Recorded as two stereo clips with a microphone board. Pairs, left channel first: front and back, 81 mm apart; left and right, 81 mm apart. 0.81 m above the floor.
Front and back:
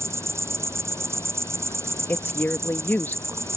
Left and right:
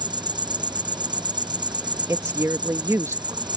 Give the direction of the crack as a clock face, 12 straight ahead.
I don't hear a crack.